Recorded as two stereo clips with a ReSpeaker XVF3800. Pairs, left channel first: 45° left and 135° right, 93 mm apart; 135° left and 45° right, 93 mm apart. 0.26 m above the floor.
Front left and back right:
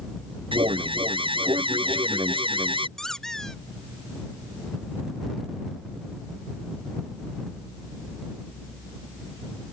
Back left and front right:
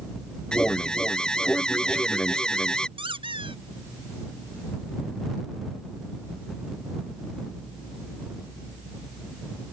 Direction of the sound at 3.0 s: 40° right.